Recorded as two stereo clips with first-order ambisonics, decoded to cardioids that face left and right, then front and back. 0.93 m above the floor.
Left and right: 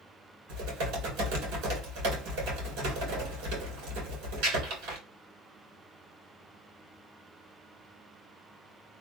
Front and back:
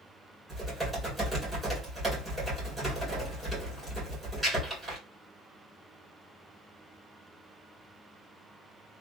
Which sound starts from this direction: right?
Typing on a keyboard, at 0.5 s.